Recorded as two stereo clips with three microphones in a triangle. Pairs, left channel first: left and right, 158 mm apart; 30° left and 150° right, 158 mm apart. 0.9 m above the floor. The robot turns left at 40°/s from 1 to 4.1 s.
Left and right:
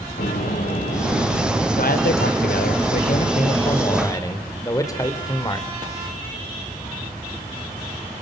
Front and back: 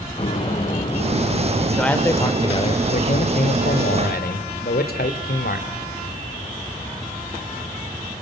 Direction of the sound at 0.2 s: 85° left.